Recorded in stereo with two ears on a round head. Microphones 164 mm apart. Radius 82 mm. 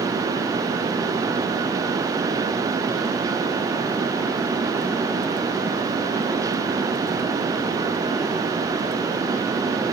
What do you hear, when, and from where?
Only background noise.